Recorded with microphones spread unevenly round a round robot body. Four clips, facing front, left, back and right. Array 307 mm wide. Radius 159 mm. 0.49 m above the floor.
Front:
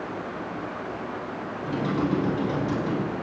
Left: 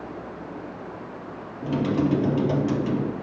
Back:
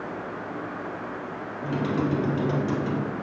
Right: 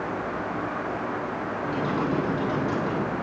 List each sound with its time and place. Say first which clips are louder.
1.6 s typing on a keyboard: left 5 dB, even; 110° left, 2.5 m